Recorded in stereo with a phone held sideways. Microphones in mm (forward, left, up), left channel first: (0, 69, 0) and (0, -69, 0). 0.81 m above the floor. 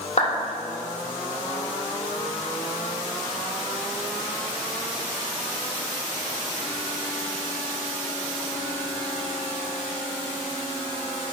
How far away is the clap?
About 2.5 m.